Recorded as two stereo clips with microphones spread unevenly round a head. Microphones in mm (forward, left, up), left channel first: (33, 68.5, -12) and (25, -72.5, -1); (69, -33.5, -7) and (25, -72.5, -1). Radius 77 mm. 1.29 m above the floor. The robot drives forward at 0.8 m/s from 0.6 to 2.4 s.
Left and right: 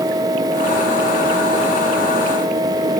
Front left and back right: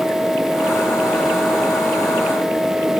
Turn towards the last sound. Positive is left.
No sound to turn to.